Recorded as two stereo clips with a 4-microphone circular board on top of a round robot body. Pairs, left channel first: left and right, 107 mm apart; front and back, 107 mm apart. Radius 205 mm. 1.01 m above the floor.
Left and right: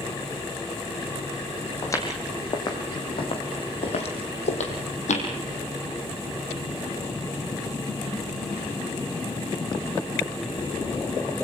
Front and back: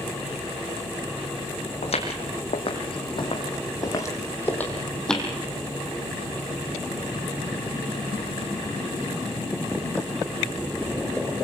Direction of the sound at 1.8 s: 25° left.